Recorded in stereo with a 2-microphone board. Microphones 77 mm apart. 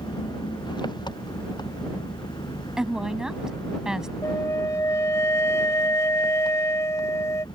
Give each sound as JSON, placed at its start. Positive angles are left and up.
{"t": 0.0, "sound": "an engine running", "side_deg": 75}
{"t": 2.8, "sound": "a woman speaking", "side_deg": -10}
{"t": 4.2, "sound": "a flute", "side_deg": 40}